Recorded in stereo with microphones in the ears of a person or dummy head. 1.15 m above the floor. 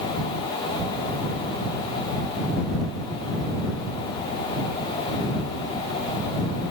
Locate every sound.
Only background noise.